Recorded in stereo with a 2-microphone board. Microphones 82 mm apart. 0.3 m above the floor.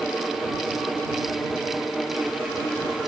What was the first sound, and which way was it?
Only background noise.